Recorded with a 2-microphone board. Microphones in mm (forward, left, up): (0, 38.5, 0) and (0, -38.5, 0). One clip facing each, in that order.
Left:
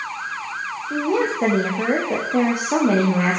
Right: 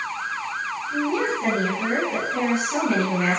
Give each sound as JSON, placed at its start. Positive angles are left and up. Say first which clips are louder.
{"t": 0.9, "sound": "a woman speaking", "louder": "left 3 dB", "side_deg": 70, "distance_m": 6.0}